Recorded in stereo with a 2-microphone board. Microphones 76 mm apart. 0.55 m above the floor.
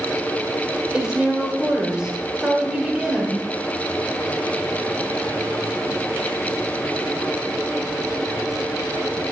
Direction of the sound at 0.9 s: 10° right (ahead or behind).